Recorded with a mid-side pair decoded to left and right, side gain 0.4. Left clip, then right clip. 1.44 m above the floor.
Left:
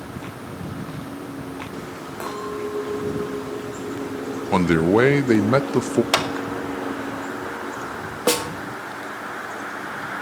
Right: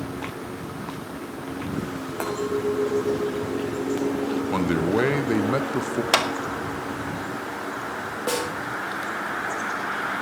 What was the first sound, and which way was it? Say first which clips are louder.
A clink: right 3 dB; 30° right.